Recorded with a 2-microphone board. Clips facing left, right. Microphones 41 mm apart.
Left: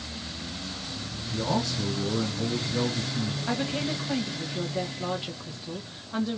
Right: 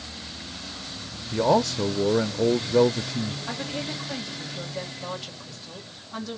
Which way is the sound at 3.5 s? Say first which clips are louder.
Left 3 dB; 20° left (ahead or behind).